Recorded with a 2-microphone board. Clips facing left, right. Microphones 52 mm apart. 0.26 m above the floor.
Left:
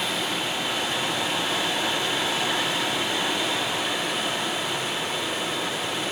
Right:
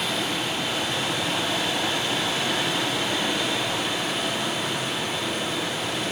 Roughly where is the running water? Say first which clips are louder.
Even; centre.